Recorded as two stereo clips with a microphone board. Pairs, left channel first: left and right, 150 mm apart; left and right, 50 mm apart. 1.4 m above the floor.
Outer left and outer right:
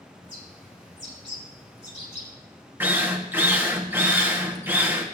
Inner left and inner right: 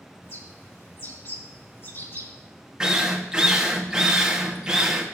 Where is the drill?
15° right (ahead or behind), 1.5 m.